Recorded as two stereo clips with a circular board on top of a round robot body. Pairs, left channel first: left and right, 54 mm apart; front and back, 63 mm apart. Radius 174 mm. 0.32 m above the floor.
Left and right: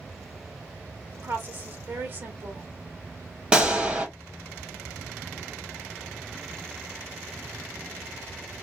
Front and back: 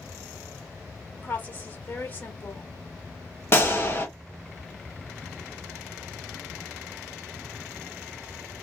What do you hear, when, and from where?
1.1 s a woman speaking: 55° right, 1.7 m
3.5 s a gunshot: 30° right, 1.7 m